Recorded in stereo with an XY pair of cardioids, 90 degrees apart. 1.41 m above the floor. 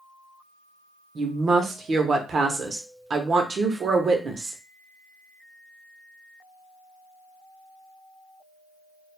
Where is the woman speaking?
50° right, 0.8 m.